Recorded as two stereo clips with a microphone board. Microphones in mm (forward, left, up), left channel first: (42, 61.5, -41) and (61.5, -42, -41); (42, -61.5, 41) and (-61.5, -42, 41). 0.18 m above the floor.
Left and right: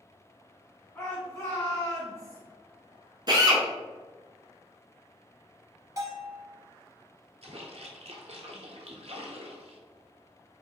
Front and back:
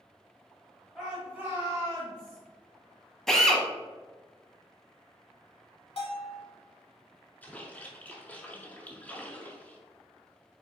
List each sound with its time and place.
0.9 s a shout: 80° left, 1.1 m; by 2.4 s 155° left, 1.5 m
3.3 s a drill: 95° right, 0.8 m
6.0 s a bell: 25° right, 1.2 m
7.4 s a splash: 85° right, 0.9 m